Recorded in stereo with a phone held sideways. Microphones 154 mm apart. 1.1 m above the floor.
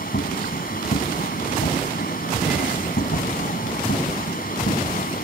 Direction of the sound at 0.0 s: 75° left (ahead or behind).